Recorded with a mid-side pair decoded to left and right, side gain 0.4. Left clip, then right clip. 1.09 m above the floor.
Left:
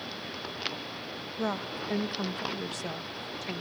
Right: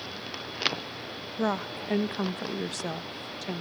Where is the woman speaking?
35° right, 0.7 m.